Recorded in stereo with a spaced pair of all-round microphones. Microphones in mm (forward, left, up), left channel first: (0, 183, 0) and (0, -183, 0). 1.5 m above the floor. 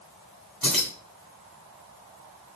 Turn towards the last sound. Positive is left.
turn(degrees=60)  # may be behind; listen again after turning